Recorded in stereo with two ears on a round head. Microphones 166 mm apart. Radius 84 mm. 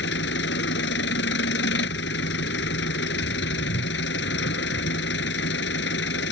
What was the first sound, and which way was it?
An engine running, 65° left (ahead or behind).